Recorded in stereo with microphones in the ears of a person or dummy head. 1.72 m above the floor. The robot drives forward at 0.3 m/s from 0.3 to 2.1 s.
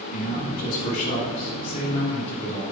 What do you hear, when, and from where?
0.1 s a man speaking: 40° left (ahead or behind), 1.0 m; by 2.6 s 30° left (ahead or behind), 1.4 m